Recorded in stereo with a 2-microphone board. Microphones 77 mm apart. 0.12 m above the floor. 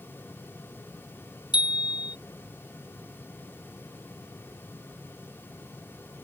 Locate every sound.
1.5 s a bicycle bell: 70° left (ahead or behind)